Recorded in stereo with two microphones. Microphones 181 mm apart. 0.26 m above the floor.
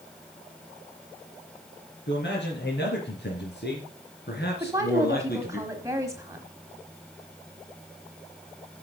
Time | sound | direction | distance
2.1 | a man speaking | 75° left (ahead or behind) | 3.5 m
4.6 | a woman speaking | 15° right (ahead or behind) | 1.3 m